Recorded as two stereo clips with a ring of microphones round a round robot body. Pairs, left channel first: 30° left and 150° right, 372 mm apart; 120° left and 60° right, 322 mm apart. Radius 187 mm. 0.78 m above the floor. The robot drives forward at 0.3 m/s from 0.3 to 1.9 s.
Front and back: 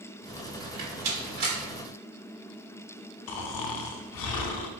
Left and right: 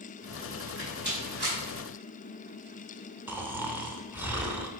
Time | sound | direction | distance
0.6 | a rattle | 120° right | 1.6 m
3.3 | snoring | 20° left | 0.6 m